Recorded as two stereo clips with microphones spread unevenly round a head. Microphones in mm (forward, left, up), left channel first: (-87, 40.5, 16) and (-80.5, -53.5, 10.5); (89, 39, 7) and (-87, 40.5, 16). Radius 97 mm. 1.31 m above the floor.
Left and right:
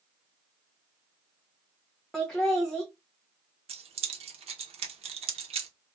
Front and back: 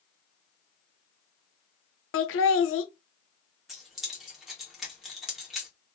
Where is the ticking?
No ticking in this recording.